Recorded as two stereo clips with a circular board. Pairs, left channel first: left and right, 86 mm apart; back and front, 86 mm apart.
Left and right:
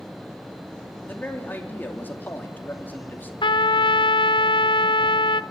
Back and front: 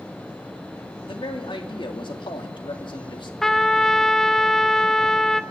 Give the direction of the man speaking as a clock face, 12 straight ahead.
7 o'clock.